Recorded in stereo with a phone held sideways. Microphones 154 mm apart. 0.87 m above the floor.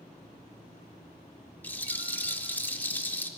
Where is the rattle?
10° left (ahead or behind), 0.6 m.